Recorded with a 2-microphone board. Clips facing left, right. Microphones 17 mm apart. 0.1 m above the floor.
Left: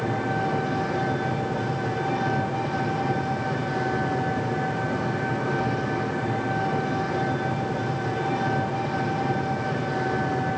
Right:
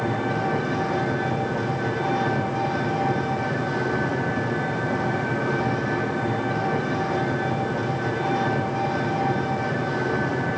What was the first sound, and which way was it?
An engine running, 40° right (ahead or behind).